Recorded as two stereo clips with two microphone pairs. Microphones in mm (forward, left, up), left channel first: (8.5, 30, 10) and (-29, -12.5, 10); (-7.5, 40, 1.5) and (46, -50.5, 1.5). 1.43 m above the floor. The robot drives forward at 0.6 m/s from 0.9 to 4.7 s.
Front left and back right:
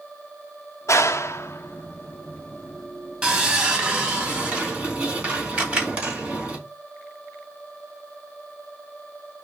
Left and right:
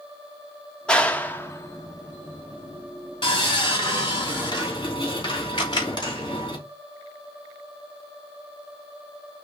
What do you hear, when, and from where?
0.9 s a clap: 40° left, 1.1 m; by 2.9 s 130° left, 0.9 m
3.2 s sawing: 160° left, 3 m; by 6.6 s 165° left, 3.5 m
5.6 s a camera shutter: 165° left, 3 m